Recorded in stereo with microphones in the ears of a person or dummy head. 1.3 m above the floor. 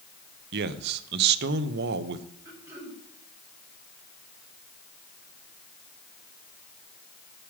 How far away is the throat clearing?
About 4 m.